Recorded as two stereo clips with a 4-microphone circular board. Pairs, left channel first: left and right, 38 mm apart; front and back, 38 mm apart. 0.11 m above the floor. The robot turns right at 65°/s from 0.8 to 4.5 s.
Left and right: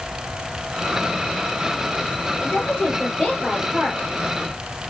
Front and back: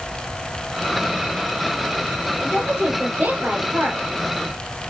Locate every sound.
2.4 s a woman speaking: 110° left, 2 m; by 4.0 s 145° right, 2 m